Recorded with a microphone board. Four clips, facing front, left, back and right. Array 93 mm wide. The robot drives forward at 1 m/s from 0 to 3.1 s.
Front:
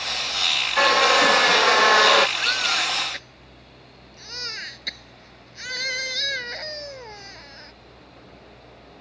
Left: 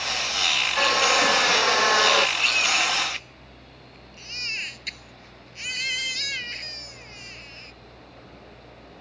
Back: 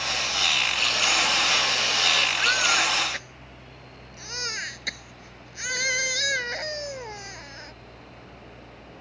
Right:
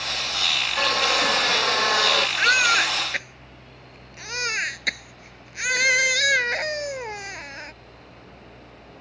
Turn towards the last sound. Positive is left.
turn(degrees=-100)